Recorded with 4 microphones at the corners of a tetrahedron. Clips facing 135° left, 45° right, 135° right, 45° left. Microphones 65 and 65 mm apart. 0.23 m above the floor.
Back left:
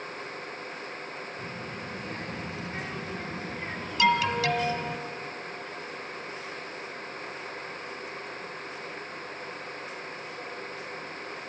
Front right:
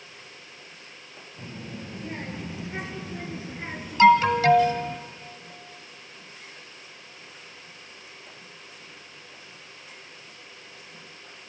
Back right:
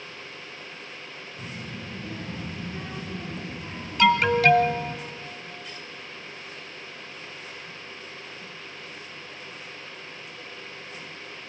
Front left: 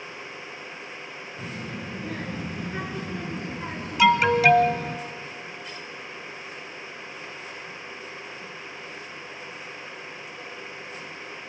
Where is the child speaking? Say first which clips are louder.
Back left 2 dB, front left 3 dB; 20° left, 4 m; by 5.0 s 50° left, 2.5 m.